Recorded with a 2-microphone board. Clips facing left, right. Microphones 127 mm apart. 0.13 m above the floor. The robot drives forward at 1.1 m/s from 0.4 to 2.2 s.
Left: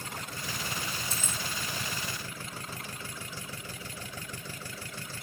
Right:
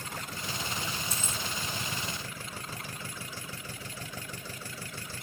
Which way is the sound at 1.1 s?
30° left (ahead or behind).